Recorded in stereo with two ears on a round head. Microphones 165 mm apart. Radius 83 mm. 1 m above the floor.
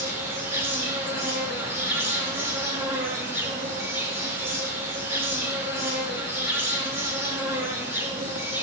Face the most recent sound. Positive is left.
turn(degrees=-15)  # may be behind; listen again after turning